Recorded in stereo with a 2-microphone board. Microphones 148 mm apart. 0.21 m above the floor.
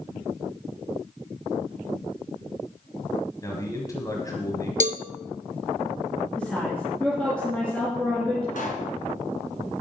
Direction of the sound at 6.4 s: 10° left (ahead or behind).